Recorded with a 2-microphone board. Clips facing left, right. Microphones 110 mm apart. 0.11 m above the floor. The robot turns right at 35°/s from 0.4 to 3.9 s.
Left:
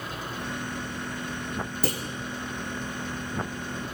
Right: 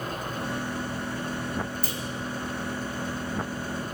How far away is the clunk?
About 2.5 m.